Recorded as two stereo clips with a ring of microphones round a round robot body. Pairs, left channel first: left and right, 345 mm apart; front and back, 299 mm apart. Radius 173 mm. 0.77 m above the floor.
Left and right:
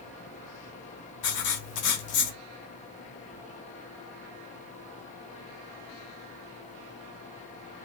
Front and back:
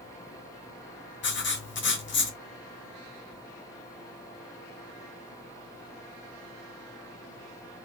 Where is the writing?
55° left, 0.8 m.